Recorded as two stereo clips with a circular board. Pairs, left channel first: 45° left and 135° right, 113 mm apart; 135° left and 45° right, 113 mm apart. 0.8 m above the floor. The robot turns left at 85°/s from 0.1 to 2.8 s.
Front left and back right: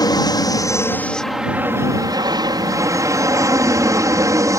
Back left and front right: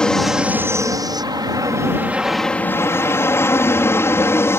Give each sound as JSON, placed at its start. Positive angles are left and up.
{"t": 0.0, "sound": "an aircraft", "azimuth_deg": 55}